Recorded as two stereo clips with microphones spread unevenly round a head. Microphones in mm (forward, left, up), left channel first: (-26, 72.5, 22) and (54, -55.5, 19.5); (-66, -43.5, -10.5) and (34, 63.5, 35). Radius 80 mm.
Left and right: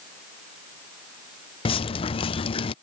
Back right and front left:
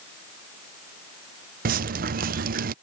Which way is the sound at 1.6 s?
65° left.